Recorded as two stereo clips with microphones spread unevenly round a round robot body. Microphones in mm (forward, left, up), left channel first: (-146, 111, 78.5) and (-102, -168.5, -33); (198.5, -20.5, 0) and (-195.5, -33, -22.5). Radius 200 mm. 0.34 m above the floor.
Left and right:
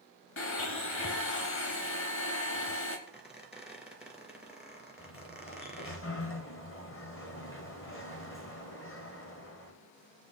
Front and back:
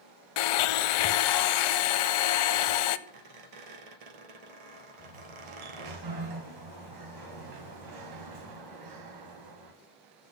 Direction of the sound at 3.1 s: 170° right.